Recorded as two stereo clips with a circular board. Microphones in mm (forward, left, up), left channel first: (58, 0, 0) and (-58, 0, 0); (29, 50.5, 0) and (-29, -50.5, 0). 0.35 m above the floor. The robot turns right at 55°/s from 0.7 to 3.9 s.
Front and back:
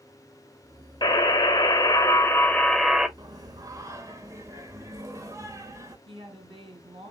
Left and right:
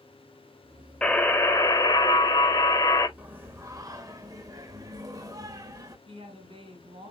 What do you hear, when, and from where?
1.0 s a buzzer: 15° right, 1.3 m; by 3.1 s 100° left, 1.3 m
3.2 s singing: 175° left, 1.3 m; by 6.0 s 145° right, 1.3 m
6.1 s a woman speaking: 145° right, 4 m